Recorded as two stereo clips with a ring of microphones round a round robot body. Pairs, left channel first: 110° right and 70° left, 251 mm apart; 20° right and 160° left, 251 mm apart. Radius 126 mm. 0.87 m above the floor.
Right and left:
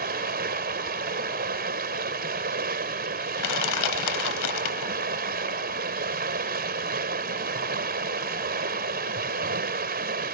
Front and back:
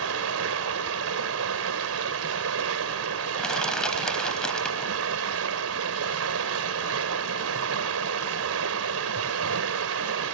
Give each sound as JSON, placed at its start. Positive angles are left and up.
{"t": 0.0, "sound": "running water", "azimuth_deg": 125}
{"t": 3.4, "sound": "crushing", "azimuth_deg": -110}